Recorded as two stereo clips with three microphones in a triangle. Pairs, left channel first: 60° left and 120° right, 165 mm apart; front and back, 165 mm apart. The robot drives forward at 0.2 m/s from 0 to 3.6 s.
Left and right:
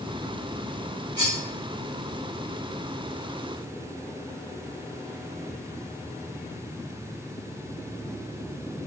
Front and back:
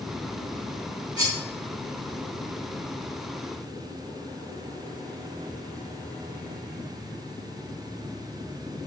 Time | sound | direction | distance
1.2 | cutlery clinking | 115° right | 1.8 m